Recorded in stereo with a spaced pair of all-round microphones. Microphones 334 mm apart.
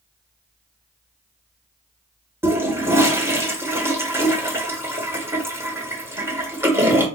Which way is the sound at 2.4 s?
5° right (ahead or behind).